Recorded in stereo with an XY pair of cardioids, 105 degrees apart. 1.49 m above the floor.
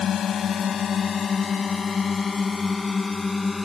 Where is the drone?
55° left; by 3.6 s 20° left.